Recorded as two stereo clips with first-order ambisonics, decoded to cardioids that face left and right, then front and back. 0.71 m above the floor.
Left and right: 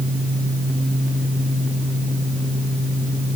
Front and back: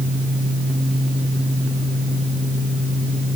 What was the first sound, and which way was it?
Only background noise.